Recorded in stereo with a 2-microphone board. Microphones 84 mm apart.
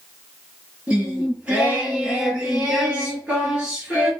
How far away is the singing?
About 3 m.